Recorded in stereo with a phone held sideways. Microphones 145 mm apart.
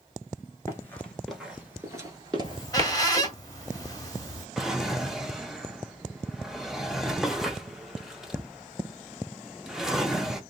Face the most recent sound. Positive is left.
turn(degrees=-5)  # may be behind; listen again after turning